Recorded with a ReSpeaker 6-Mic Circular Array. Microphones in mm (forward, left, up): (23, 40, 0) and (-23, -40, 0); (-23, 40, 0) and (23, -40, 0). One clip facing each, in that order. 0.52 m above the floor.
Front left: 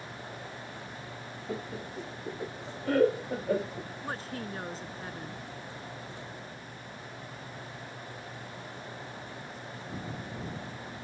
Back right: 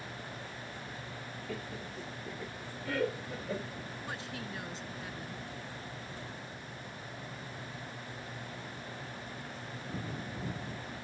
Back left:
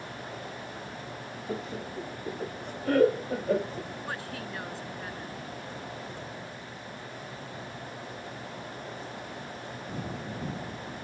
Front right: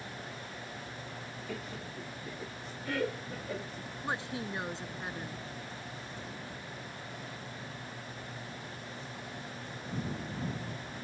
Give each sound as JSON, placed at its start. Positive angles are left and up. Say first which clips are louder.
{"t": 1.5, "sound": "laughter", "louder": "front left 5 dB, back left 8 dB", "azimuth_deg": 90}
{"t": 4.0, "sound": "a woman speaking", "louder": "front left 6 dB, front right 1 dB", "azimuth_deg": 10}